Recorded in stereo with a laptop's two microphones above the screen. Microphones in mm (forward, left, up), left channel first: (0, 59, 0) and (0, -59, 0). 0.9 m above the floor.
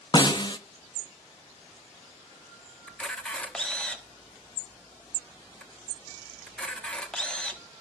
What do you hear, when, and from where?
0.1 s a snare drum: 35° left (ahead or behind), 0.6 m
2.9 s a camera shutter: 5° left (ahead or behind), 1.0 m